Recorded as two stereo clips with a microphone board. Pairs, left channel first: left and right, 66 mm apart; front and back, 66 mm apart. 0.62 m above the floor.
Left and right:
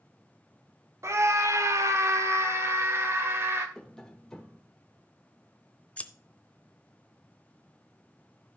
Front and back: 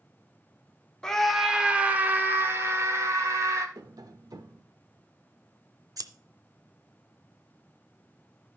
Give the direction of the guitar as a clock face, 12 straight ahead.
I don't hear a guitar.